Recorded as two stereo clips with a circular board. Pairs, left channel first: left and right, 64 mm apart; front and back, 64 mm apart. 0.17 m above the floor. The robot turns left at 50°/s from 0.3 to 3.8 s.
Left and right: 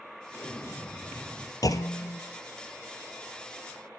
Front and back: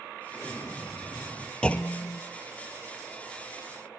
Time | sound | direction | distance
0.3 | an explosion | 70° left | 2.5 m
1.6 | a clunk | 75° left | 1.0 m